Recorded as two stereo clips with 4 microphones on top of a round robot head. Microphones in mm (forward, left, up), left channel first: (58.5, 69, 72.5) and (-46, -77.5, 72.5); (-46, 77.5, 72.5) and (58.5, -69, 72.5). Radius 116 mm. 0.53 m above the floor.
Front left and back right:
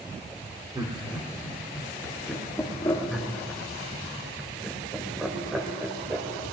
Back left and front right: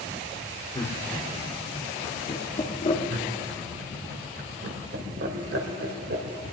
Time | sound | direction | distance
0.8 | laughter | 175° left | 1.9 m
3.1 | laughter | 35° right | 2.0 m